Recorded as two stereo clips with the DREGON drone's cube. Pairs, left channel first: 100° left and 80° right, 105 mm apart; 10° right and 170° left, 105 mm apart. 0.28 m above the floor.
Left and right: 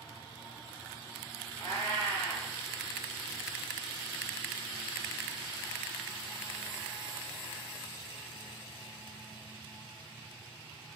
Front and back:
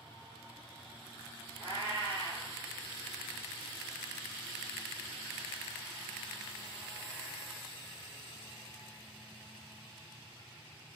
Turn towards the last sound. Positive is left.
turn(degrees=65)